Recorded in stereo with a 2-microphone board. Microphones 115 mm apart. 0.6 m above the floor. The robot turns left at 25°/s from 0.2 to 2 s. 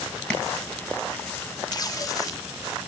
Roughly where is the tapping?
Centre.